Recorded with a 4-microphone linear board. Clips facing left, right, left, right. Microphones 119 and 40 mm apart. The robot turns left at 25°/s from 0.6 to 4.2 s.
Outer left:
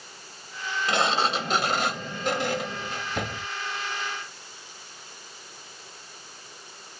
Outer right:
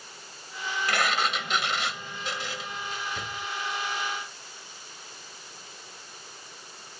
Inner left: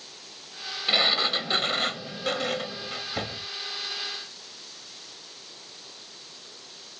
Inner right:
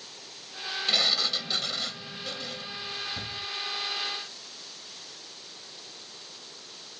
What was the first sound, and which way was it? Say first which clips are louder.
A sliding door: outer left 4 dB, inner left 4 dB; 155° left.